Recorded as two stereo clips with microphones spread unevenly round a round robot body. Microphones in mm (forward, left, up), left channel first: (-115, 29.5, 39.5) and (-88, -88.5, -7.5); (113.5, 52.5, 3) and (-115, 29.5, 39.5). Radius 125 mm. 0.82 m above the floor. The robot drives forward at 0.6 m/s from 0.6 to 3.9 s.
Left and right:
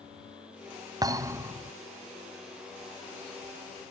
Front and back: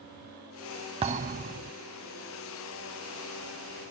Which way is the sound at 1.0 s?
150° right.